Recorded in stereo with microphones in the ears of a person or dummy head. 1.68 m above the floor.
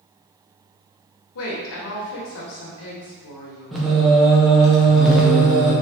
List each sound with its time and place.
1.4 s a woman speaking: 70° left (ahead or behind), 0.9 m
3.7 s singing: centre (ahead or behind), 0.6 m